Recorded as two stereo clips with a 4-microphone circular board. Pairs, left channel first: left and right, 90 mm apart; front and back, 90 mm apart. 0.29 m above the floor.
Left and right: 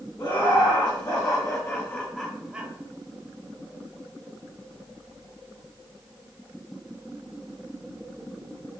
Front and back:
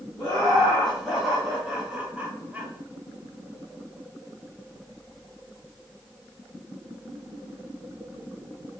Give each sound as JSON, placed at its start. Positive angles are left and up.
{"t": 0.2, "sound": "laughter", "azimuth_deg": 85, "distance_m": 1.7}